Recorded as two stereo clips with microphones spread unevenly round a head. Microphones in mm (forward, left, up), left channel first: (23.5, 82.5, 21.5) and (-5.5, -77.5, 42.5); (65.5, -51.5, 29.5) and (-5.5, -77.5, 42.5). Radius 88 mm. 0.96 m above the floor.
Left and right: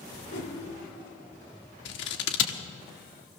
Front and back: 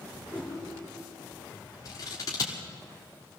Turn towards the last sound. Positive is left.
turn(degrees=75)